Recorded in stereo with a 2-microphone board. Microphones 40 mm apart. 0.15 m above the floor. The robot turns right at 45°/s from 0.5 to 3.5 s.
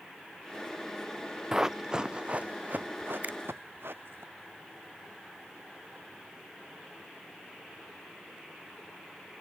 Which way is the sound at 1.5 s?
15° right (ahead or behind).